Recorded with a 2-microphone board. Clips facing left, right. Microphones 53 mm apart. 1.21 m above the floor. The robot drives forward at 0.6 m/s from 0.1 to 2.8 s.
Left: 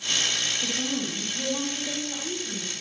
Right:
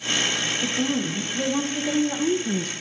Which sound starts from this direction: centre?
A woman speaking, at 0.6 s.